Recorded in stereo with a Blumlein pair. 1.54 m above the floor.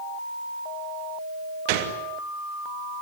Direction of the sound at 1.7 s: 45° right.